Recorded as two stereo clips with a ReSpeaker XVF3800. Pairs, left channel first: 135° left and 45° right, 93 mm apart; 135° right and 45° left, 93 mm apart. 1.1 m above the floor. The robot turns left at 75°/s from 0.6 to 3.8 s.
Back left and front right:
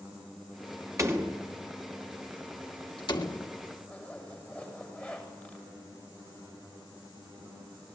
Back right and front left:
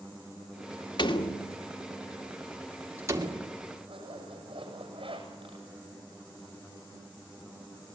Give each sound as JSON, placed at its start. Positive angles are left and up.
{"t": 1.0, "sound": "a door slam", "azimuth_deg": -100, "distance_m": 2.5}
{"t": 3.9, "sound": "a zipper", "azimuth_deg": 65, "distance_m": 7.5}